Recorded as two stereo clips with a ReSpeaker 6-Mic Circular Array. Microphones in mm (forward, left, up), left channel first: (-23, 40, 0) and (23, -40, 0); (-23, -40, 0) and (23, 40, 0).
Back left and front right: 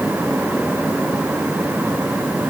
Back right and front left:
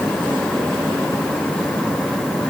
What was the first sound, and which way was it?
Only background noise.